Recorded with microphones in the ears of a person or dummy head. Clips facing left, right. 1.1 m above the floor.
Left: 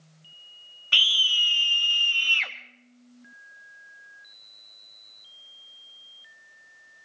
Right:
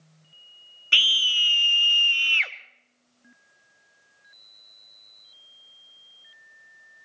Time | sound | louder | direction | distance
0.9 | a scream | right 1 dB | 25° right (ahead or behind) | 1.0 m